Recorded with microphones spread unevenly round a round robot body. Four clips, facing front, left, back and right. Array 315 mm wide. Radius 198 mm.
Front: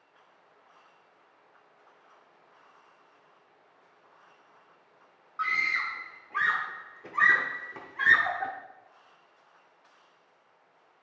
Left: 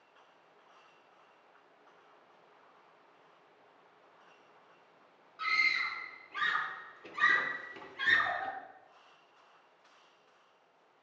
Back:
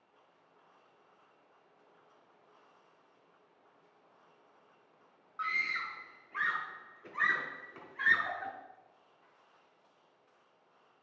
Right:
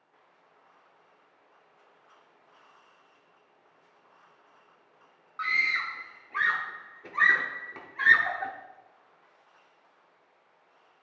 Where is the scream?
20° right, 0.9 m.